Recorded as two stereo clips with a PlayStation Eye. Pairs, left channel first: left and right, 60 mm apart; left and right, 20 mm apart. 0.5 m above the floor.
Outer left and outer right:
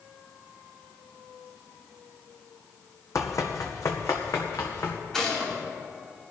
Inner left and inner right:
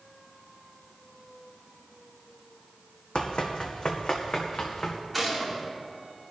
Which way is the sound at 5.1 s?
5° left (ahead or behind).